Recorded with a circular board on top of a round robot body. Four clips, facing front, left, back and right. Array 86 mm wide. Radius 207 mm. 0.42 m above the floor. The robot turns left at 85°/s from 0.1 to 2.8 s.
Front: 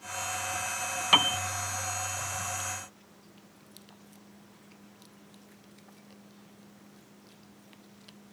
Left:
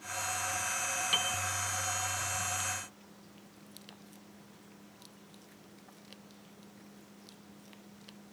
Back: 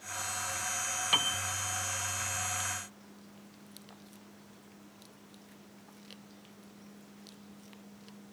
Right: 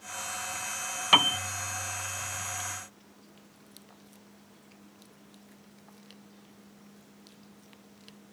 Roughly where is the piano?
Ahead right.